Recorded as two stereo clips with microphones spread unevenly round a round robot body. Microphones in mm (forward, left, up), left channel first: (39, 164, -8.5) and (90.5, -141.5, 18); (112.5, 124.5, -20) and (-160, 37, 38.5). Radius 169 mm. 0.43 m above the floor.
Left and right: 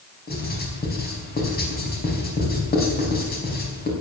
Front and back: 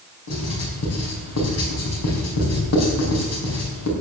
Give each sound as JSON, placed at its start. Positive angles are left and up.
{"t": 0.3, "sound": "writing", "azimuth_deg": 40, "distance_m": 4.0}